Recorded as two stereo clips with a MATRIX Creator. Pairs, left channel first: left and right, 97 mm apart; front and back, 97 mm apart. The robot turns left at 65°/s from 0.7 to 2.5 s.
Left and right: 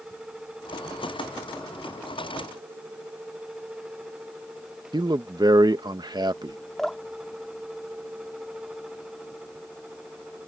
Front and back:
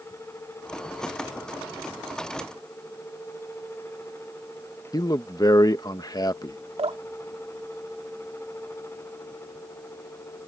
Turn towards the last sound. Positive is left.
turn(degrees=175)